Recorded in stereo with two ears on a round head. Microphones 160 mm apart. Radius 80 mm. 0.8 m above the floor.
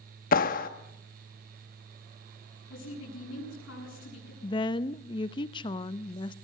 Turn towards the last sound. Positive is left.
turn(degrees=25)  # may be behind; listen again after turning